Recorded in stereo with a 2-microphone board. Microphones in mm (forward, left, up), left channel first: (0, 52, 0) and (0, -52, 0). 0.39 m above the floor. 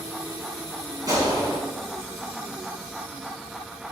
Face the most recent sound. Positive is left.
turn(degrees=-35)  # may be behind; listen again after turning